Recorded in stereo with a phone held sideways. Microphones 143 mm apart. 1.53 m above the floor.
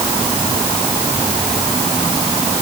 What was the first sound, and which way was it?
Only background noise.